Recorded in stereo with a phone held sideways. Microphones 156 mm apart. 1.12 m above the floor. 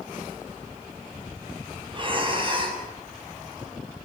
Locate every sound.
1.9 s breathing: 35° right (ahead or behind), 7 m